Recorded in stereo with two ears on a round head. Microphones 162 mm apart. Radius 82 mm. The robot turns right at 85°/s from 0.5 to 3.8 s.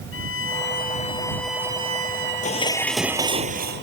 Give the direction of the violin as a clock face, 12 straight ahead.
9 o'clock.